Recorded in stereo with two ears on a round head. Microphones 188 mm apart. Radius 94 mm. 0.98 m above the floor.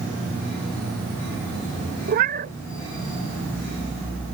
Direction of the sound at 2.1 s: 45° right (ahead or behind).